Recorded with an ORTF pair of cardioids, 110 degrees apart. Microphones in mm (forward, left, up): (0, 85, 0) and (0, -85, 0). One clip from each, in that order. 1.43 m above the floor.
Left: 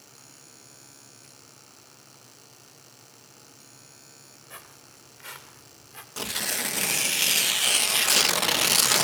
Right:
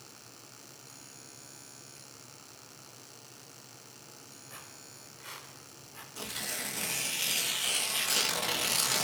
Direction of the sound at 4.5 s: 40° left.